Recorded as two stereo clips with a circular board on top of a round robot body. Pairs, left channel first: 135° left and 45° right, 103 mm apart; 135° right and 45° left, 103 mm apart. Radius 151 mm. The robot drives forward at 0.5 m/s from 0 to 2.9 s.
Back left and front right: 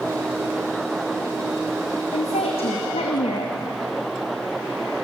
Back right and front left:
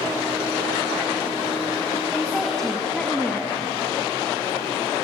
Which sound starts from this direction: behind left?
A woman speaking, at 2.1 s.